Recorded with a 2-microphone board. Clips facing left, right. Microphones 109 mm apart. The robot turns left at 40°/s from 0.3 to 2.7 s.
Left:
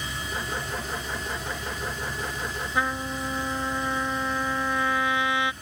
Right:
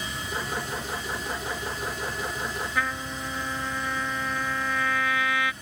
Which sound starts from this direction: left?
A trumpet, at 2.8 s.